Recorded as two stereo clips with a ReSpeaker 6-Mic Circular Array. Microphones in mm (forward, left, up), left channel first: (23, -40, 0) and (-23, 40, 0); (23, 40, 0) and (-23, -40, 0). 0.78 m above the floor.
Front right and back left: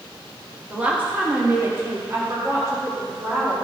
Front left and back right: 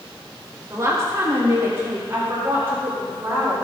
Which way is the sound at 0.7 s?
165° right.